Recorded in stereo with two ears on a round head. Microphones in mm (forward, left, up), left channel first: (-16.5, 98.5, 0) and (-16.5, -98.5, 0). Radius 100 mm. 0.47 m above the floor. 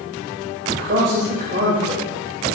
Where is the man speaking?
50° right (ahead or behind), 2.0 m; by 2.6 s 30° right (ahead or behind), 2.5 m.